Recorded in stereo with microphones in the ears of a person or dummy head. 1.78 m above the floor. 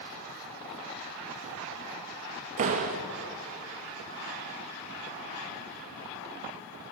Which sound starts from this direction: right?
A door slam, at 2.6 s.